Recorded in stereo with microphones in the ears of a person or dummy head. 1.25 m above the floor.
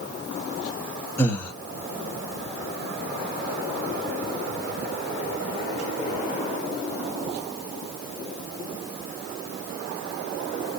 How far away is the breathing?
About 0.8 m.